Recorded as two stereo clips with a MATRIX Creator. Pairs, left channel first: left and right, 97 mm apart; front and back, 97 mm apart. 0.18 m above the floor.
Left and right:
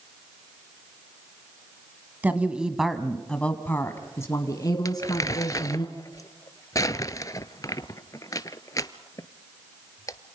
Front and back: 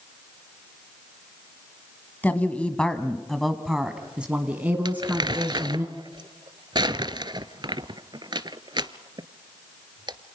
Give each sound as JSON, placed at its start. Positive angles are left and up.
{"t": 2.2, "sound": "a woman speaking", "azimuth_deg": -45, "distance_m": 1.4}
{"t": 4.8, "sound": "crumpling", "azimuth_deg": 140, "distance_m": 0.7}